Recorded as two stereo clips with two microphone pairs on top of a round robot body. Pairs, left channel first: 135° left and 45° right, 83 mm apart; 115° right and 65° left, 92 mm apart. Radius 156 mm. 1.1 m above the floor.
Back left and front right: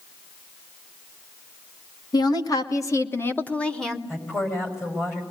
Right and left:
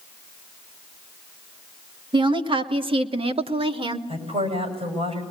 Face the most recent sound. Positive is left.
turn(degrees=75)